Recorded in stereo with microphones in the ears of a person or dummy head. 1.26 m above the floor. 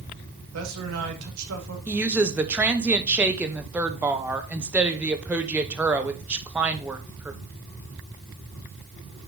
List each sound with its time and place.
0.5 s a man speaking: 85° right, 2.0 m
1.9 s a woman speaking: 10° right (ahead or behind), 0.8 m